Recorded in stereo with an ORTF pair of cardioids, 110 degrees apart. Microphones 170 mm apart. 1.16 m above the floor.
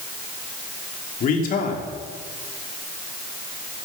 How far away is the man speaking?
About 3 m.